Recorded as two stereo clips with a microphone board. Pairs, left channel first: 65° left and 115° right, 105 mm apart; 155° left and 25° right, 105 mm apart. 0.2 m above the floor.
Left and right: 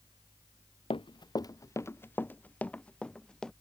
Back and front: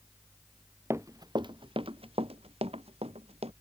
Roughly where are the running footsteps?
Ahead left.